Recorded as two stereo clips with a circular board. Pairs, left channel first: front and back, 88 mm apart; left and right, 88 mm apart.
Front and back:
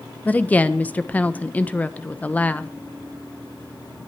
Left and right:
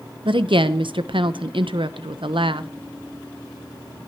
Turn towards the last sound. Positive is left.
turn(degrees=-70)